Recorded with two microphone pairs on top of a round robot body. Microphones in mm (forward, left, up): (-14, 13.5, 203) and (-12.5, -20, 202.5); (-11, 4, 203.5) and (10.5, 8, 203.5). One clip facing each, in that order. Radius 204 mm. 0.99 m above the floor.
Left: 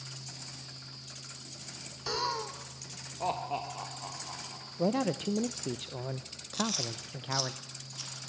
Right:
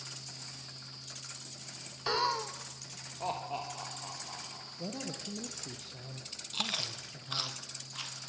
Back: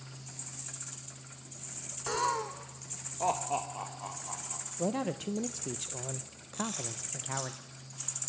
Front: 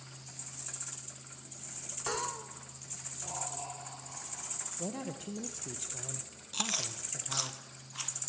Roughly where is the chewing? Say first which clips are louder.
Left 2 dB, front 3 dB; ahead right.